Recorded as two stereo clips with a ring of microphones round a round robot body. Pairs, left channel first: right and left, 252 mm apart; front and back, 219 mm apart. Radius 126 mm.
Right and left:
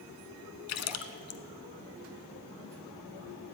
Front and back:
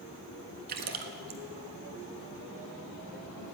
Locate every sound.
0.7 s a splash: 125° right, 0.7 m